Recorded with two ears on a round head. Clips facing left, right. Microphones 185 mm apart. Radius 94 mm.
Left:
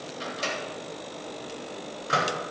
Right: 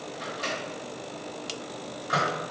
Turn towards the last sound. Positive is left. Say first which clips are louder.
# left 2 dB
turn(degrees=35)  # may be behind; listen again after turning